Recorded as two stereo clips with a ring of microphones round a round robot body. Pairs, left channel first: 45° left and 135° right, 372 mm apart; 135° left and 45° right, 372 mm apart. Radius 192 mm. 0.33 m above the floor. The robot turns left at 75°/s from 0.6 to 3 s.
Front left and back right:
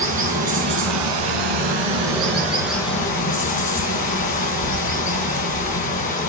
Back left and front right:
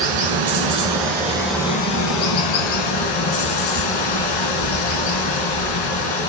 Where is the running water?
65° right, 1.6 m; by 6.3 s 115° left, 1.6 m.